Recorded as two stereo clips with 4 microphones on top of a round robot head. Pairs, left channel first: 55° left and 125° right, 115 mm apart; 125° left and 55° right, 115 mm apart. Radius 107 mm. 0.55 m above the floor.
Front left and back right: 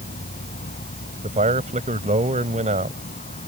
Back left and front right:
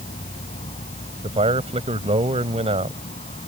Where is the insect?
85° left.